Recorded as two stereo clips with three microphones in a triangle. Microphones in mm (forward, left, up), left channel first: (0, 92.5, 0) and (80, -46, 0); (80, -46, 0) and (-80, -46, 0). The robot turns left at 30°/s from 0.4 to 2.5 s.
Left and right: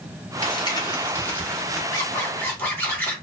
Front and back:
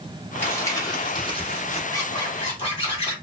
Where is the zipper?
60° left, 1.5 m; by 3.1 s 45° left, 1.5 m.